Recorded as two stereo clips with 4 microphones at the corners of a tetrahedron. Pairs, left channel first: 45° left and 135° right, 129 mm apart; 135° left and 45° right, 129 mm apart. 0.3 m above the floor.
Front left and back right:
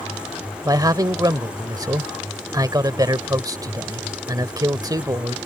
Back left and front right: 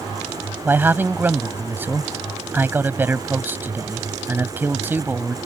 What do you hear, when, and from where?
0.7 s a man speaking: 105° right